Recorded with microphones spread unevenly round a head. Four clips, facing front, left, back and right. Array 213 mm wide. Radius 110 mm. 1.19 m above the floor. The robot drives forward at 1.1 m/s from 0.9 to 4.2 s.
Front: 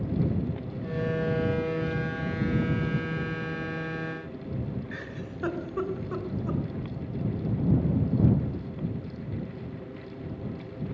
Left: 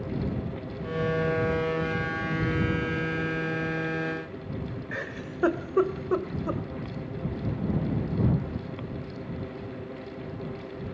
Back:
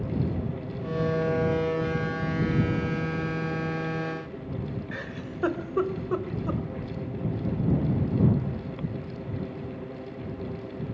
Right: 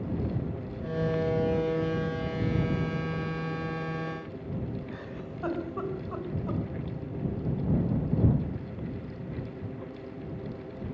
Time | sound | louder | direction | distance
4.9 | a giggle | left 4 dB, back 2 dB | 105° left | 2 m